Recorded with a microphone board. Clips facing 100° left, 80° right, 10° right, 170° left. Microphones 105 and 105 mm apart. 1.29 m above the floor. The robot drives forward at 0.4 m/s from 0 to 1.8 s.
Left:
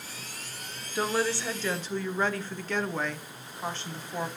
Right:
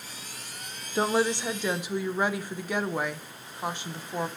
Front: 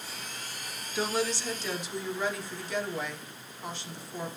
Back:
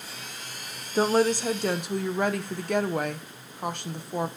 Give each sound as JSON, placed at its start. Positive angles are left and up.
{"t": 0.9, "sound": "a woman speaking", "azimuth_deg": -140, "distance_m": 0.6}